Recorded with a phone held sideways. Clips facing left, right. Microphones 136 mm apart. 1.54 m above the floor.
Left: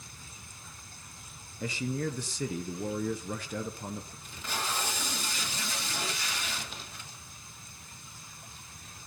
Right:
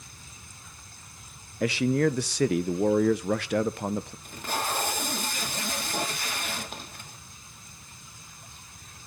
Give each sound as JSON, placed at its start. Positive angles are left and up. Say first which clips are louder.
{"t": 1.6, "sound": "a man speaking", "louder": "right 10 dB", "side_deg": -80, "distance_m": 0.9}
{"t": 4.2, "sound": "tape being pulled", "louder": "right 2 dB", "side_deg": -55, "distance_m": 3.0}